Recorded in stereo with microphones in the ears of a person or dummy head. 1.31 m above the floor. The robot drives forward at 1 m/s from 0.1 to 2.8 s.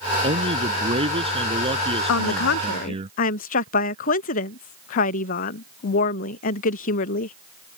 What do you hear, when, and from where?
0.2 s a man speaking: 35° right (ahead or behind); by 3.1 s 30° right (ahead or behind)
2.1 s a woman speaking: 80° left; by 7.4 s 50° left (ahead or behind)